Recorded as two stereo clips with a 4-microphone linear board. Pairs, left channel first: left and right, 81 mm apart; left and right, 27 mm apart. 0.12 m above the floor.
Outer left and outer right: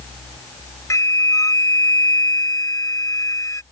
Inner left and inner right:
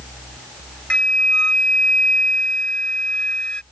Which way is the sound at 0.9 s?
40° left (ahead or behind).